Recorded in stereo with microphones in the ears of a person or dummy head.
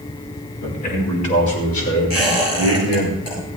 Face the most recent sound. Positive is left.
turn(degrees=85)